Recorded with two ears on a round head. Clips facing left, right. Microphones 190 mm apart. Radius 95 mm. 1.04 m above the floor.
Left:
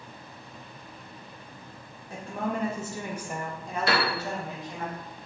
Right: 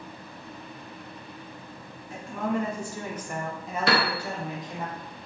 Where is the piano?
55° right (ahead or behind), 0.6 m.